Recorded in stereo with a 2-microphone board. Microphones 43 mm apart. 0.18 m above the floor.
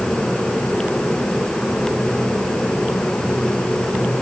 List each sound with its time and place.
Only background noise.